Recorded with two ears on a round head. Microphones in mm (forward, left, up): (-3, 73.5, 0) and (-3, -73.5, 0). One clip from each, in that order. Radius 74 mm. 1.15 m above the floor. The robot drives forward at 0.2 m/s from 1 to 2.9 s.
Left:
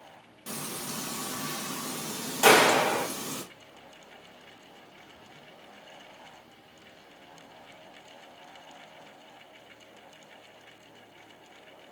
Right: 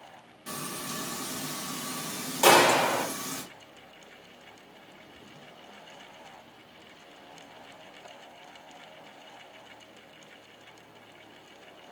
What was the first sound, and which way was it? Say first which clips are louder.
Frying: right 1 dB; 15° left (ahead or behind).